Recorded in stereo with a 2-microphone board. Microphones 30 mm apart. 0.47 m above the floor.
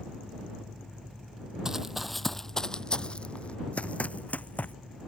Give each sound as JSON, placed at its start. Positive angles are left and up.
{"t": 1.6, "sound": "running footsteps", "side_deg": -20}